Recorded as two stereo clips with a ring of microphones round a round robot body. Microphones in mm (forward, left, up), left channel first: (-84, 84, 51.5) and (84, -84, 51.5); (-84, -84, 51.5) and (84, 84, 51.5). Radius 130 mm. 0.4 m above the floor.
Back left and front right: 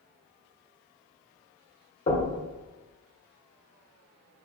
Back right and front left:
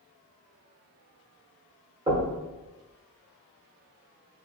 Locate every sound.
2.1 s knocking: 100° left, 1.2 m